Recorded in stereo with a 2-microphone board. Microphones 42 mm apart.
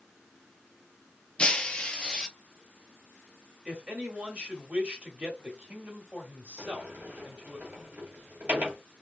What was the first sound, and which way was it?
Breaking glass, 20° left (ahead or behind).